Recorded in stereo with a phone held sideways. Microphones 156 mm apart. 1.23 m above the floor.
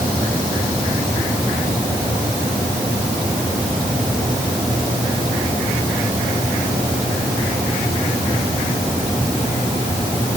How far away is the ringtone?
I don't hear a ringtone.